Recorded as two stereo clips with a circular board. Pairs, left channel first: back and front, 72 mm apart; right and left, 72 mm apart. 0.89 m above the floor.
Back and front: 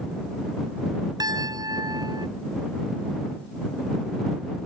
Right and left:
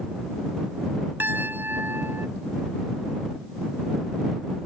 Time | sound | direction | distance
1.2 | a piano | 30° left | ?